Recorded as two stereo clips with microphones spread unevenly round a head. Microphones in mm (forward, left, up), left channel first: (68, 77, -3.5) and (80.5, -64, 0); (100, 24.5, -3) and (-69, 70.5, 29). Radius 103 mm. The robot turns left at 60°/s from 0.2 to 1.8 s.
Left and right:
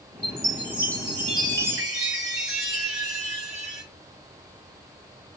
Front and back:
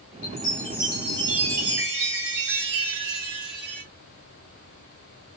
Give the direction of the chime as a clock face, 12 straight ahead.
2 o'clock.